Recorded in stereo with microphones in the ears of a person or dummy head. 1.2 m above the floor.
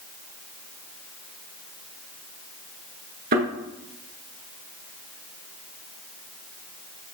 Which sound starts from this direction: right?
A thud, at 3.3 s.